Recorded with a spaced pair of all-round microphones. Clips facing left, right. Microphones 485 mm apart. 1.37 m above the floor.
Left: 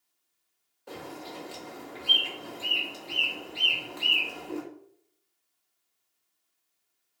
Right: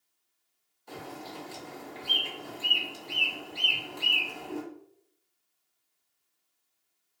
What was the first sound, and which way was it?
A bird, 75° left (ahead or behind).